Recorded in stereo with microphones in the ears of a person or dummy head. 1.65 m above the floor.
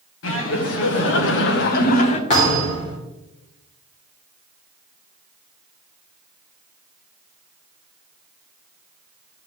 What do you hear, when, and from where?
0.2 s laughter: 75° left (ahead or behind), 1.6 m; by 2.2 s 35° left (ahead or behind), 0.9 m
2.3 s a thud: 35° left (ahead or behind), 3 m